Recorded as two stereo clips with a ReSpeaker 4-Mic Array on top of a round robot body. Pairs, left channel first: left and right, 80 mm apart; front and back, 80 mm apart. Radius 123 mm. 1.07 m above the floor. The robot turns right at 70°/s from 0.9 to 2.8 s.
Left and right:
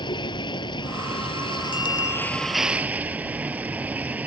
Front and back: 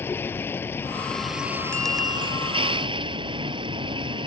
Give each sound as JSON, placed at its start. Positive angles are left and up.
{"t": 0.0, "sound": "a vehicle", "azimuth_deg": 65}
{"t": 1.7, "sound": "a bicycle bell", "azimuth_deg": 80}